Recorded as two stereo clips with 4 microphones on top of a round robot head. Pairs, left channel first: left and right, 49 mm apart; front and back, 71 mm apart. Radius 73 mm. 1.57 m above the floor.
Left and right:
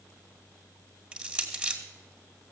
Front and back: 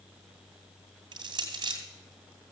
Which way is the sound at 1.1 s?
160° right.